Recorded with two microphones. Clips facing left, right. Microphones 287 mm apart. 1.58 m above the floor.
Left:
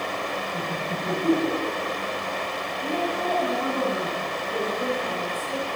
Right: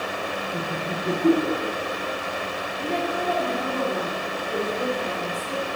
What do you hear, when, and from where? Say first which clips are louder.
0.5 s laughter: right 1 dB; 55° right (ahead or behind), 1.7 m
2.8 s a woman speaking: right 1 dB; 80° right, 3.5 m